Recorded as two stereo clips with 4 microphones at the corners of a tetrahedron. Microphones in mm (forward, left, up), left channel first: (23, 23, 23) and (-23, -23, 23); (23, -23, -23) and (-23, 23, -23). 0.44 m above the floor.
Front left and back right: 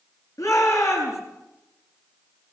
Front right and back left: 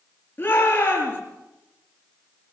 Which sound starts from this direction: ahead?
A shout, at 0.4 s.